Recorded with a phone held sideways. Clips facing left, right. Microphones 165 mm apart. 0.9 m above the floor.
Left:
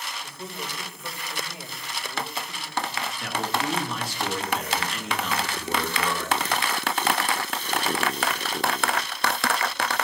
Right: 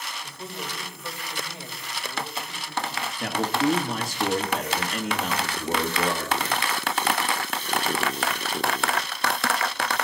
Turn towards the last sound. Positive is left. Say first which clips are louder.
# right 5 dB
turn(degrees=-45)  # may be behind; listen again after turning